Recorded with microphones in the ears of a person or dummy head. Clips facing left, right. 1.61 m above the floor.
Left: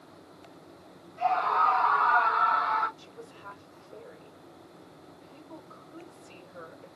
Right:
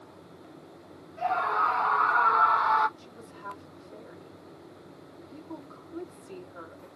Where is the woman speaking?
60° right (ahead or behind), 3.5 m.